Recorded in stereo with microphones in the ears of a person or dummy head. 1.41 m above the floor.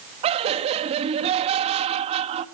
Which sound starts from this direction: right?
Laughter, at 0.2 s.